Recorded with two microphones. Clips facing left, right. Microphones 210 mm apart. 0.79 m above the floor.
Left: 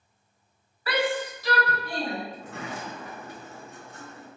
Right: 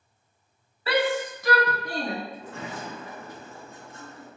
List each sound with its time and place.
0.9 s a shout: 25° right (ahead or behind), 0.7 m; by 2.1 s 35° right (ahead or behind), 1.3 m
2.3 s a sliding door: 65° left (ahead or behind), 1.0 m